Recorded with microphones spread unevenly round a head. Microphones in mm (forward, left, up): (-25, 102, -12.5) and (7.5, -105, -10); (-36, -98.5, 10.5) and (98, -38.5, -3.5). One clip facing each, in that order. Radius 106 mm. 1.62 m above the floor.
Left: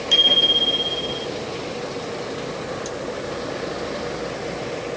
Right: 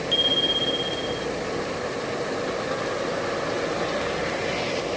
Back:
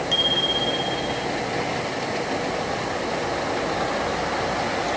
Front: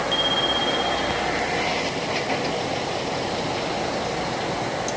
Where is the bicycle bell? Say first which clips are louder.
Left 1 dB, front 2 dB; 125° left; by 1.3 s 120° left.